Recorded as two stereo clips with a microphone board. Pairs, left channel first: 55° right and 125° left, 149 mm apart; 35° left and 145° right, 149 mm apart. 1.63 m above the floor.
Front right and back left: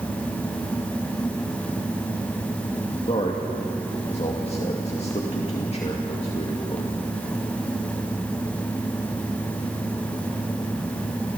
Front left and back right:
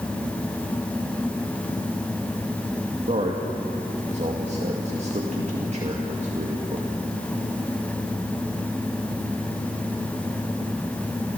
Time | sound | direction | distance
3.1 | a man speaking | 105° right | 2 m